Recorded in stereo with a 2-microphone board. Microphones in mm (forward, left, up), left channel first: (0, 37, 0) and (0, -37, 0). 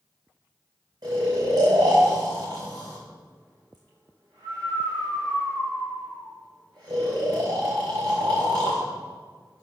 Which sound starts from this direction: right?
Snoring, at 1.0 s.